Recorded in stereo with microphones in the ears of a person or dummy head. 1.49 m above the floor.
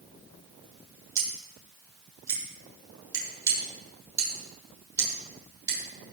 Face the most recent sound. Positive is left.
turn(degrees=-20)  # may be behind; listen again after turning